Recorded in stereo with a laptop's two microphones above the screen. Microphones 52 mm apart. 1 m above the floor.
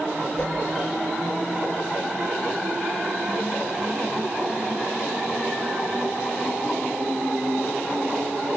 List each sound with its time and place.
0.4 s a whoosh: 15° left (ahead or behind), 4 m